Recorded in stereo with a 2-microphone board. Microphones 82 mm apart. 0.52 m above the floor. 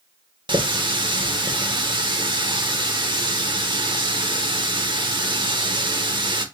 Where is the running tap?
65° right (ahead or behind), 0.8 m.